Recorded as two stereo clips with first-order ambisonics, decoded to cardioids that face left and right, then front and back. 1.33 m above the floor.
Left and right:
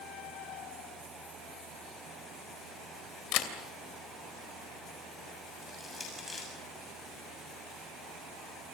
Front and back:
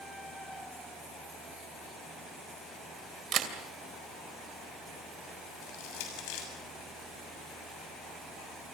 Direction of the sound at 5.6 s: 10° left.